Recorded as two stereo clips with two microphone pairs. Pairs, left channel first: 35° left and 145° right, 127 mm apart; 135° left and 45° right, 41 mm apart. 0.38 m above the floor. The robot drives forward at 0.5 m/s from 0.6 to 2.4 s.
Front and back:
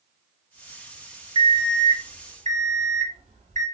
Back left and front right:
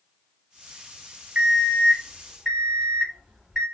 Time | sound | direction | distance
1.4 | an alarm clock | 100° right | 0.8 m